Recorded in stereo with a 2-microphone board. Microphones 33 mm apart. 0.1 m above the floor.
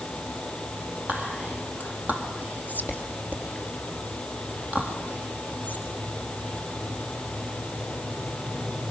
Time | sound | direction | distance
1.1 | whispering | 55° right (ahead or behind) | 3.5 m